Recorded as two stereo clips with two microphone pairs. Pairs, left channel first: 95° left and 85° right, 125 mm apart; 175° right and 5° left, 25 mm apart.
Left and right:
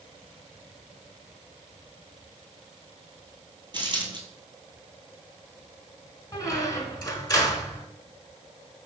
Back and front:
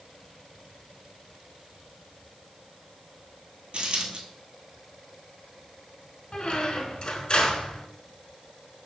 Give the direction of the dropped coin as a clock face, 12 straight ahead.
1 o'clock.